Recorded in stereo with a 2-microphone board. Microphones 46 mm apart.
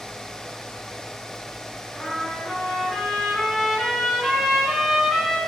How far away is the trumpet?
About 2.0 m.